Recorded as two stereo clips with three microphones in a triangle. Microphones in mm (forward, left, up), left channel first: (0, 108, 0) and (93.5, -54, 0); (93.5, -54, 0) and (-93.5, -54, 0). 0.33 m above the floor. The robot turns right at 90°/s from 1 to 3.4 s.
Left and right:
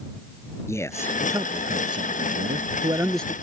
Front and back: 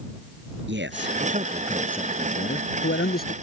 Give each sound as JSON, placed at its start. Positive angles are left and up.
{"t": 0.7, "sound": "a man speaking", "azimuth_deg": -165}